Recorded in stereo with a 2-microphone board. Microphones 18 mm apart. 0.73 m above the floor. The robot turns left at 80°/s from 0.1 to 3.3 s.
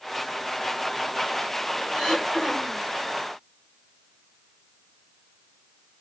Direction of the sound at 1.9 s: 130° left.